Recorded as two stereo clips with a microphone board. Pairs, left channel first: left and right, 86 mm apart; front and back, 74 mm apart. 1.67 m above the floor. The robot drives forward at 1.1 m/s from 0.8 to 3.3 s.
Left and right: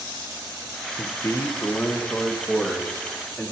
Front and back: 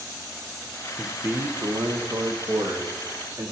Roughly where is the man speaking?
Left.